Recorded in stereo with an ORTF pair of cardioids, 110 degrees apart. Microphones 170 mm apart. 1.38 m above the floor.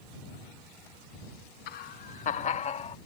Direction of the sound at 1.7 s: 65° left.